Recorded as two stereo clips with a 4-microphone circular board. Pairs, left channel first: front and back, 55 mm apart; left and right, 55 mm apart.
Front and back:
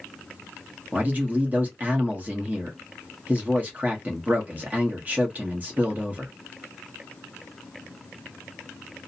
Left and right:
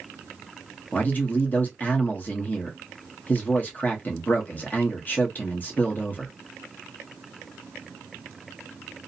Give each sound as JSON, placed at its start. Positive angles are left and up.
{"t": 0.9, "sound": "a man speaking", "azimuth_deg": 135, "distance_m": 0.9}